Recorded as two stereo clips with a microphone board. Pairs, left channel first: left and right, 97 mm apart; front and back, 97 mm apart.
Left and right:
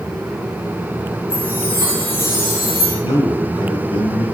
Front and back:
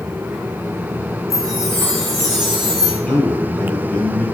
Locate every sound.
1.3 s a chime: 85° left, 8 m
3.0 s a man speaking: 80° left, 7.5 m